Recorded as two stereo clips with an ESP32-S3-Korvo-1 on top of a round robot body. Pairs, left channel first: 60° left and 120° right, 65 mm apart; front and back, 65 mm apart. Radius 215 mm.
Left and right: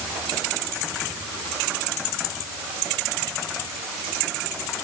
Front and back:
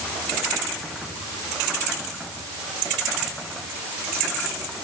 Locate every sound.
Only background noise.